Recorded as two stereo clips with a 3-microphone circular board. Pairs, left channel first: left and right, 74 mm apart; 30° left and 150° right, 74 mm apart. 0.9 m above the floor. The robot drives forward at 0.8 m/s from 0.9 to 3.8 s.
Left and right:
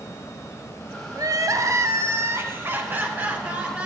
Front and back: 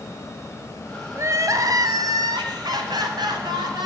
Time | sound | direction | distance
1.1 | crying | 110° right | 1.1 m